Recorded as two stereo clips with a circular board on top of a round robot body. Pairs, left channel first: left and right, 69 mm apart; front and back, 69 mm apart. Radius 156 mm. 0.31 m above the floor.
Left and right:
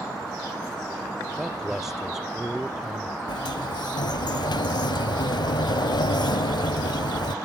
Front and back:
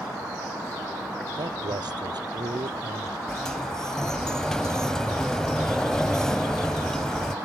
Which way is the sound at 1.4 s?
175° right.